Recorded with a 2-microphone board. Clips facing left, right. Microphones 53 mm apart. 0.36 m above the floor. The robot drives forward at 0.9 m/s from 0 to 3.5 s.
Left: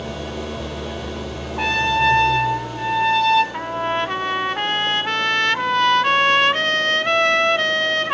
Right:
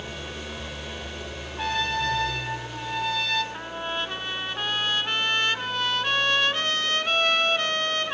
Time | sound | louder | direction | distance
0.0 | an engine running | left 8 dB | 75° left (ahead or behind) | 4 m
1.6 | a trumpet | left 8 dB | 65° left (ahead or behind) | 3 m
3.5 | a trumpet | left 9 dB | 60° left (ahead or behind) | 1.0 m